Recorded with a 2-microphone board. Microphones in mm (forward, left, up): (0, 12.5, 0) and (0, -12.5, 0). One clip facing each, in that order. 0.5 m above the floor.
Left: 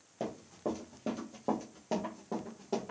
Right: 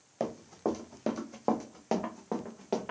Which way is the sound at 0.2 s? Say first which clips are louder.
Right 4 dB; 40° right (ahead or behind).